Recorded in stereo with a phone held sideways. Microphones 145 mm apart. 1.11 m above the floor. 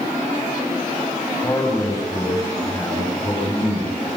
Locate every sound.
1.4 s a man speaking: 20° left (ahead or behind), 7 m